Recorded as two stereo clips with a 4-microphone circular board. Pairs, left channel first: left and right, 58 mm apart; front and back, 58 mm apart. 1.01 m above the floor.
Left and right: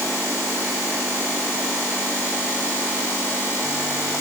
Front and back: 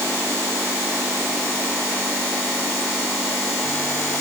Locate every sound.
Only background noise.